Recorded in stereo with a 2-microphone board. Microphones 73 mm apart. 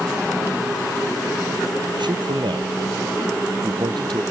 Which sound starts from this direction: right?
A man speaking, at 2.0 s.